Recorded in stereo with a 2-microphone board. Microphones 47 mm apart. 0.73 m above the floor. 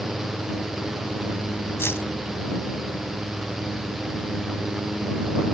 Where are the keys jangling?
65° left (ahead or behind).